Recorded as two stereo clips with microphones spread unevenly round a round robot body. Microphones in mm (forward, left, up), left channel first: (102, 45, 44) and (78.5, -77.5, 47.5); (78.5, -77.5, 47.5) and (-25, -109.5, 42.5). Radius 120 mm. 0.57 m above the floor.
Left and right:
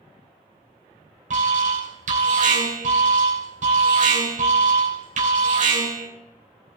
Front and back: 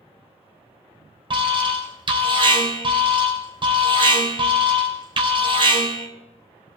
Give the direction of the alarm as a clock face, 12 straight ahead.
4 o'clock.